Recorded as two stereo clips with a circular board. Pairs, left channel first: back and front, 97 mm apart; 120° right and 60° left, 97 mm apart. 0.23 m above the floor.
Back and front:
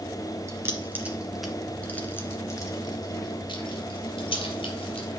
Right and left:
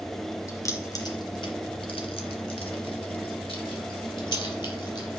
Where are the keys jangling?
60° right, 2 m; by 5.1 s 160° right, 4 m.